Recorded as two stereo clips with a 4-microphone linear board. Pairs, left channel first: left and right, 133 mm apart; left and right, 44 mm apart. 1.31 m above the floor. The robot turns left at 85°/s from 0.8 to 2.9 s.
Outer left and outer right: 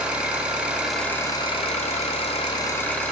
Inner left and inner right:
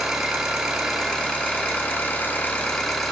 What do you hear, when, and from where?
0.0 s an engine running: 170° right, 1.8 m; by 3.1 s 15° left, 1.8 m